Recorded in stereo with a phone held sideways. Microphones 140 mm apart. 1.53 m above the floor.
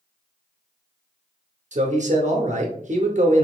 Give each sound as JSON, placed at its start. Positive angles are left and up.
{"t": 1.7, "sound": "a man speaking", "side_deg": -60, "distance_m": 0.7}